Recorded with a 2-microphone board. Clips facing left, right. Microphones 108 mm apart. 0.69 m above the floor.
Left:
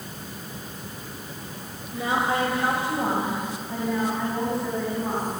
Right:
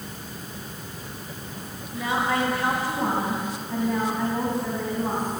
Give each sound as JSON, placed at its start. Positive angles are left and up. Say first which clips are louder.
{"t": 1.9, "sound": "a woman speaking", "louder": "even", "side_deg": 35, "distance_m": 3.0}